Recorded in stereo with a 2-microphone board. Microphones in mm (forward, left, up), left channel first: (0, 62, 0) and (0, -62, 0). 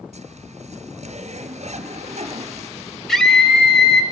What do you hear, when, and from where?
0.1 s a zipper: 65° right (ahead or behind), 1.9 m
3.1 s a scream: 5° left (ahead or behind), 3.5 m